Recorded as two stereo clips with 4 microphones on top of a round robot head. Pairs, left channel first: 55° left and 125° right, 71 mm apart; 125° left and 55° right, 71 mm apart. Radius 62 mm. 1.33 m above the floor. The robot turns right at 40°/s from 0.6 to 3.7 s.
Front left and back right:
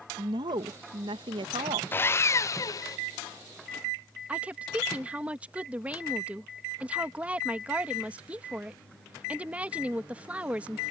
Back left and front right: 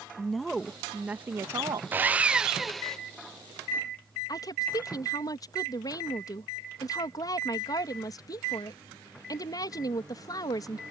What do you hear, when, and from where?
0.2 s a woman speaking: 150° right; by 1.8 s 100° right
1.9 s sawing: straight ahead; by 3.0 s 45° left
4.3 s a woman speaking: 160° left